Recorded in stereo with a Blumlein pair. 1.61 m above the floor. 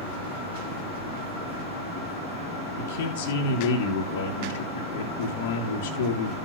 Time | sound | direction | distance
2.8 | a man speaking | 55° left | 2.0 m